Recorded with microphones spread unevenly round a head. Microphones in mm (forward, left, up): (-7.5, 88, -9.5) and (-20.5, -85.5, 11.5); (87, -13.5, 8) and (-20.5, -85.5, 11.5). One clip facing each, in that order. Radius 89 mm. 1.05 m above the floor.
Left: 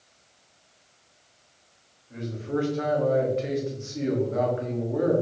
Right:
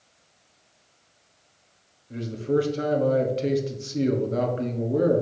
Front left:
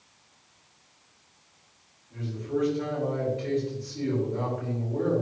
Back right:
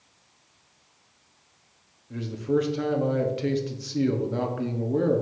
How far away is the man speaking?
About 1.3 m.